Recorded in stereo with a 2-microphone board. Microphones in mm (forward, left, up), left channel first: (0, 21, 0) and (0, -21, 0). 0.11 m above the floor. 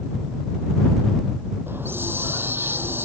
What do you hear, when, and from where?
1.7 s a hiss: 65° right (ahead or behind)